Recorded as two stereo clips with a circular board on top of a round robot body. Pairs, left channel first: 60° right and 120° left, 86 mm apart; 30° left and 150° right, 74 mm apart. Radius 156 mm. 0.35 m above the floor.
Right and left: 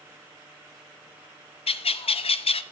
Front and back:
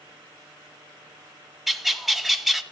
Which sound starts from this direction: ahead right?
A bird, at 1.7 s.